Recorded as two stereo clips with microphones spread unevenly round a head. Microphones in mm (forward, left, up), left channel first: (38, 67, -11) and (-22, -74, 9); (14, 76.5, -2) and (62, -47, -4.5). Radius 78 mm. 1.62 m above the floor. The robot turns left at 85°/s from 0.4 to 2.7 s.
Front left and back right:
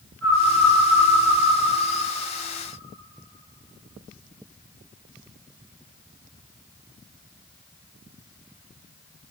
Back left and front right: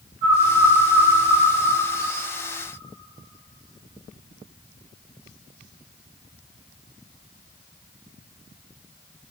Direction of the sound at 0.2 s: 20° right.